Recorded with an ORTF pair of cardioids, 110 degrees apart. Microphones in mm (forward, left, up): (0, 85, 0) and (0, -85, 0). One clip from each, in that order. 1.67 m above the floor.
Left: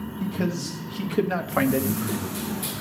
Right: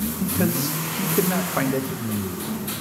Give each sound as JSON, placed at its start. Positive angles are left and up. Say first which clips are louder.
{"t": 0.2, "sound": "a man speaking", "louder": "right 3 dB", "azimuth_deg": -40, "distance_m": 1.4}